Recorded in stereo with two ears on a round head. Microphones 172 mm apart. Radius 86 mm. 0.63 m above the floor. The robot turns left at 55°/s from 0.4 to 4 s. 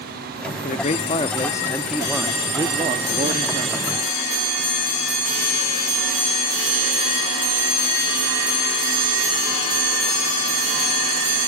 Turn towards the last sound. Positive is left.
turn(degrees=-110)